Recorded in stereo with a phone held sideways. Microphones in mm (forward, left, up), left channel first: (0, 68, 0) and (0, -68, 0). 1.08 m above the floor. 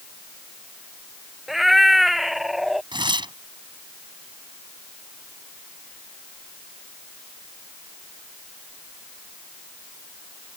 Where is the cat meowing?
Centre (ahead or behind).